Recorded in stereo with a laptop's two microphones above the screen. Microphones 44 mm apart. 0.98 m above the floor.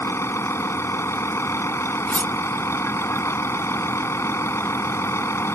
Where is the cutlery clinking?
35° left (ahead or behind).